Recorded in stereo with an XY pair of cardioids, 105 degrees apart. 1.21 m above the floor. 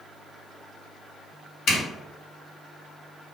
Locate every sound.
1.7 s a zipper: 70° left, 1.1 m